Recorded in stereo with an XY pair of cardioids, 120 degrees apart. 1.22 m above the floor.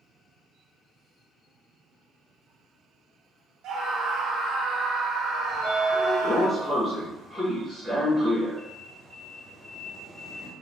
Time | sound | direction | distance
3.6 | a scream | 65° right | 1.1 m
5.5 | a sliding door | 15° left | 1.7 m